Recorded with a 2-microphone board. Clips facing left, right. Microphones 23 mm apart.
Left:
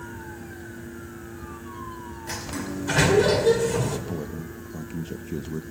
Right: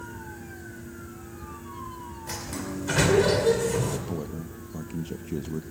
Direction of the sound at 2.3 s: 5° left (ahead or behind).